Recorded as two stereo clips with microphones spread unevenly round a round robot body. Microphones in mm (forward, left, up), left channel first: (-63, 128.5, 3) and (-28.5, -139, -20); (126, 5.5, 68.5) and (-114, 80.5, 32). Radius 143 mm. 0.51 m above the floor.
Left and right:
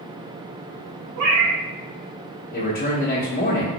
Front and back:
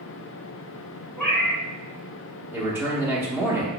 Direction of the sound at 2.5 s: 110° left.